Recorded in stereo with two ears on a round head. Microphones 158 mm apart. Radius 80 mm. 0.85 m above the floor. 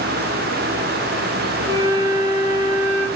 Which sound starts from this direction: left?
A flute, at 1.7 s.